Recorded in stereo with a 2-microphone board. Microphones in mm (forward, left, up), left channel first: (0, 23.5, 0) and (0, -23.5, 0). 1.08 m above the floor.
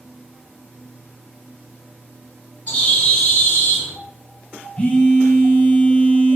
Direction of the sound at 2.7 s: 30° left (ahead or behind).